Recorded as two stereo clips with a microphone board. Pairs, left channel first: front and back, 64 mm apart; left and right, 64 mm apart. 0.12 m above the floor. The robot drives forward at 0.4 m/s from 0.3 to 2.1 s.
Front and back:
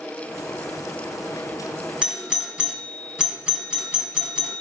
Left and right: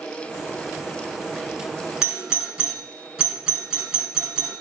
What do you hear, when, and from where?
2.0 s a doorbell: 135° right, 1.6 m; by 4.6 s 140° right, 1.6 m